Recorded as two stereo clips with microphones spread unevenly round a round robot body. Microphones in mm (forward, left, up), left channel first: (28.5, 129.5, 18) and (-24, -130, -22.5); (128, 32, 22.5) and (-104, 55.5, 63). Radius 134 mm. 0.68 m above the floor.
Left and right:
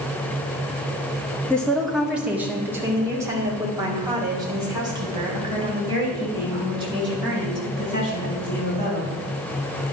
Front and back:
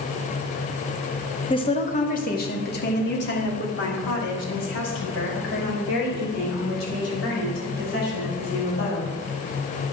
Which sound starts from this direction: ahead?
A woman speaking, at 1.5 s.